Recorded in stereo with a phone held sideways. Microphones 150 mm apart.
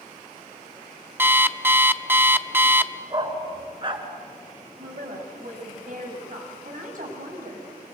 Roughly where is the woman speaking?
Right.